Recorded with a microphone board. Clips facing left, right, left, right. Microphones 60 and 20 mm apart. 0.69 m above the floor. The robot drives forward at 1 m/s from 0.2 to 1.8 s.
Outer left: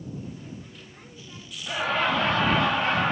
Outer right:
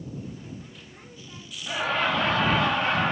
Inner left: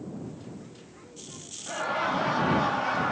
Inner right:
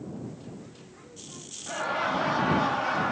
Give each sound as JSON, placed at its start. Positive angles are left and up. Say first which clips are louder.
{"t": 1.7, "sound": "laughter", "louder": "outer left 1 dB, even", "side_deg": 0, "distance_m": 1.2}